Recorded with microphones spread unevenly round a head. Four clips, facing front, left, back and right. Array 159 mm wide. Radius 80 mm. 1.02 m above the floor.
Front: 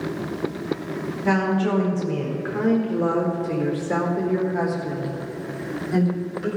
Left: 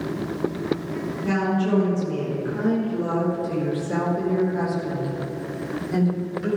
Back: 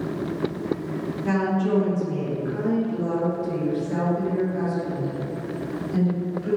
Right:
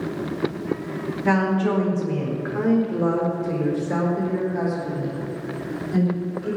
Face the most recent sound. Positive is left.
turn(degrees=15)